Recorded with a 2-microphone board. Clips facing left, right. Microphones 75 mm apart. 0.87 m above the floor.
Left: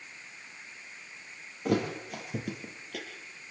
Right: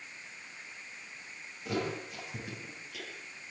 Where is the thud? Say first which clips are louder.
Left 5 dB; 60° left (ahead or behind), 6 m.